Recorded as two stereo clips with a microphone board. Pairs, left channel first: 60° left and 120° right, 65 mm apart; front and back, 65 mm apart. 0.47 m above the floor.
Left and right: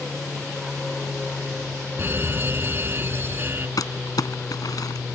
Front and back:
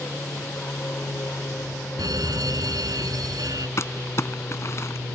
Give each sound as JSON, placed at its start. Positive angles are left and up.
{"t": 0.0, "sound": "an aircraft", "azimuth_deg": -25}
{"t": 2.0, "sound": "a fire alarm", "azimuth_deg": -175}
{"t": 3.8, "sound": "crumpling", "azimuth_deg": 45}